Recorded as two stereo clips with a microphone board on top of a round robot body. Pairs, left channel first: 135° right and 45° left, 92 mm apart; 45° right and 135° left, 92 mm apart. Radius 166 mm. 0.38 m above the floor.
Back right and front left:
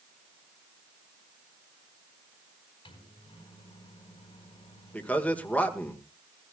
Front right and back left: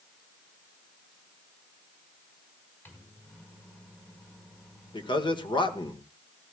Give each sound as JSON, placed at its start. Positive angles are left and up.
{"t": 2.9, "sound": "a microwave", "azimuth_deg": -110, "distance_m": 4.5}
{"t": 4.9, "sound": "a man speaking", "azimuth_deg": -60, "distance_m": 1.9}